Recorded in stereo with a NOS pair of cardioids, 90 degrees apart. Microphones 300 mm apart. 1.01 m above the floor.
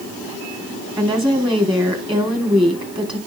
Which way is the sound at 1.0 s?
15° right.